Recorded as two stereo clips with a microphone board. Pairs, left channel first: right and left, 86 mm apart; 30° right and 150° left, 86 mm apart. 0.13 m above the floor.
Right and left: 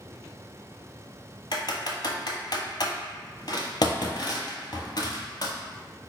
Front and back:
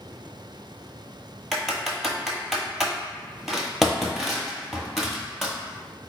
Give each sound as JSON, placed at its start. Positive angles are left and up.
{"t": 1.5, "sound": "typing on a keyboard", "azimuth_deg": -120, "distance_m": 0.7}